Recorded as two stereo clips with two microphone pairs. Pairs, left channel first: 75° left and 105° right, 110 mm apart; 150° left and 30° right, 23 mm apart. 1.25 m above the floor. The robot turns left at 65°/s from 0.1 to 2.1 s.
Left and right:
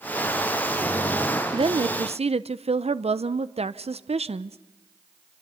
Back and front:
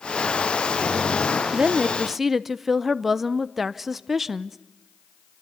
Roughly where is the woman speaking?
Right.